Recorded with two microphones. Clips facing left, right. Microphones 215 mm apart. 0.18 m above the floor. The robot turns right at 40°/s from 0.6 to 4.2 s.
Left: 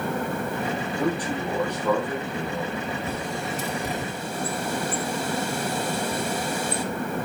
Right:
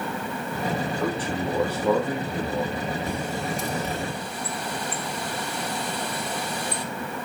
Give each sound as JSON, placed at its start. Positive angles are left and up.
{"t": 1.0, "sound": "a man speaking", "azimuth_deg": 160, "distance_m": 5.5}
{"t": 3.1, "sound": "a bird", "side_deg": -15, "distance_m": 2.5}